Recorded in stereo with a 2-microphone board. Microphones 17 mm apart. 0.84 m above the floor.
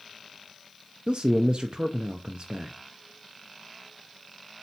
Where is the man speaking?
55° right (ahead or behind), 0.6 m.